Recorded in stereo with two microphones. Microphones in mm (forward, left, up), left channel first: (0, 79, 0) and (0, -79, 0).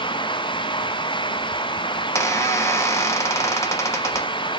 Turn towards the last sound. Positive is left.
turn(degrees=15)  # may be behind; listen again after turning